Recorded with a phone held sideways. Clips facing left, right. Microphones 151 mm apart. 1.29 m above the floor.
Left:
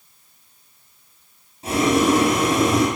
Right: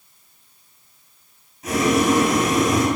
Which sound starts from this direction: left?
Boiling, at 1.6 s.